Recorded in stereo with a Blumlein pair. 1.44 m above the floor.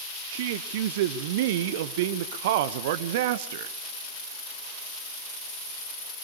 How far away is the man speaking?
About 0.8 m.